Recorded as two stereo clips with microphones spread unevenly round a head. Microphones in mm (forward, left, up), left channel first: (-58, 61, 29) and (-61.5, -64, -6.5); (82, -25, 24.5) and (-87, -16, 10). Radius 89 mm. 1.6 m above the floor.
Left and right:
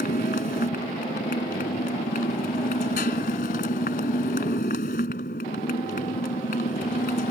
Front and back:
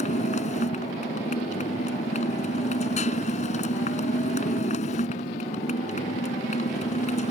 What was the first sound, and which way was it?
A motorcycle, 50° left.